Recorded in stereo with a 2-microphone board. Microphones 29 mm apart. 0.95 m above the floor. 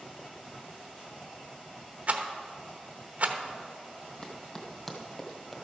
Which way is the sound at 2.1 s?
55° right (ahead or behind).